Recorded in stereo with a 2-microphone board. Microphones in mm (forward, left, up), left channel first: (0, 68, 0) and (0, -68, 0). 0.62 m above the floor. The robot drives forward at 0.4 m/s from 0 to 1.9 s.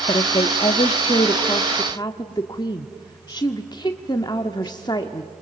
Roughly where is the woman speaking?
Left.